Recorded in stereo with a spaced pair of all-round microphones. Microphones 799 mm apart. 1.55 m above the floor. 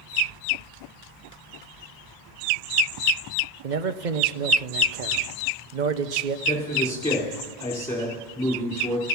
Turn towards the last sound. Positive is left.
turn(degrees=5)  # may be behind; listen again after turning